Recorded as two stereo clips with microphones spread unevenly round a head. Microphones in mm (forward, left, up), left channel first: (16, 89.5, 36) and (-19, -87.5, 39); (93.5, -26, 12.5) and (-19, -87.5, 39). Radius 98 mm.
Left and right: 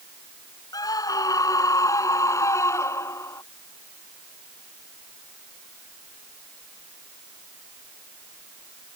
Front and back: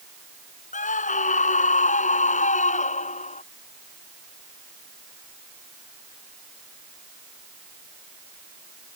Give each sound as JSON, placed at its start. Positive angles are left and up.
{"t": 0.7, "sound": "a scream", "azimuth_deg": 5}